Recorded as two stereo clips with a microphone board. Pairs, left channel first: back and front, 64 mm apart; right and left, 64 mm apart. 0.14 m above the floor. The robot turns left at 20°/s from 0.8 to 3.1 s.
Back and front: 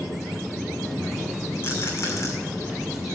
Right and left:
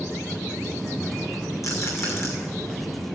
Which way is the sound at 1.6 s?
125° right.